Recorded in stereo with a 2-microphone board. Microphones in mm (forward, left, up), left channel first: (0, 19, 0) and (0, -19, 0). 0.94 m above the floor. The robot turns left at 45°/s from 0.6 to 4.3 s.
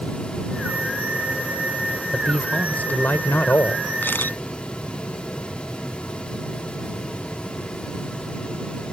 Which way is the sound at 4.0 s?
60° left (ahead or behind).